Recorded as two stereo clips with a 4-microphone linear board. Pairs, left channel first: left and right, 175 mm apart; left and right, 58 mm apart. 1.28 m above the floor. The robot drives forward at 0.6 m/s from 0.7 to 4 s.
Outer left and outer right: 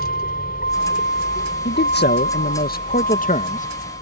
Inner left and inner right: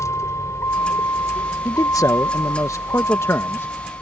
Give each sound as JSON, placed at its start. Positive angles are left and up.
{"t": 0.0, "sound": "a vehicle", "side_deg": 60}
{"t": 1.6, "sound": "a man speaking", "side_deg": 75}